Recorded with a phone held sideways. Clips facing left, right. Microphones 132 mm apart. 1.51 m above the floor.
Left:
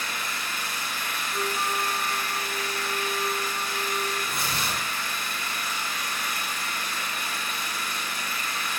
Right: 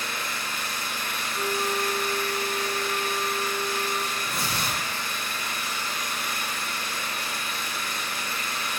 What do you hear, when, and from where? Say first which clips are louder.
0.0 s an engine running: right 1 dB; 30° right (ahead or behind), 1.6 m
1.3 s a flute: right 2 dB; 20° left (ahead or behind), 0.9 m
4.2 s tearing paper: even; 35° right (ahead or behind), 1.4 m